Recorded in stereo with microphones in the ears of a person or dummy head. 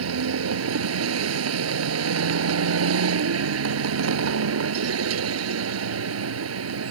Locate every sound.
0.0 s a vehicle: 90° right